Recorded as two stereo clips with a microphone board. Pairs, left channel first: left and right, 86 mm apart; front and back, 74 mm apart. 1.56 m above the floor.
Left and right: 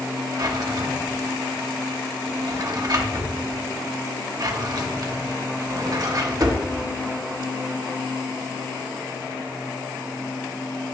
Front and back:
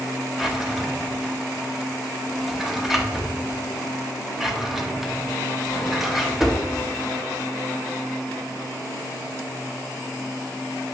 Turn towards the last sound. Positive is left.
turn(degrees=-95)